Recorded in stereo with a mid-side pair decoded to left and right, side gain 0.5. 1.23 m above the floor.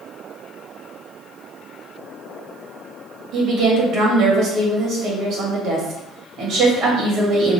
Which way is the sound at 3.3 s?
70° right.